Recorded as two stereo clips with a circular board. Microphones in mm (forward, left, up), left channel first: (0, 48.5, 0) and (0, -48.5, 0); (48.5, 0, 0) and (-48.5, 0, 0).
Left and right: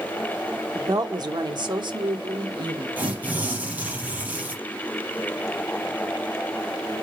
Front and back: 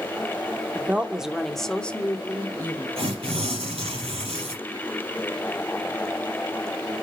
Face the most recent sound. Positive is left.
turn(degrees=-160)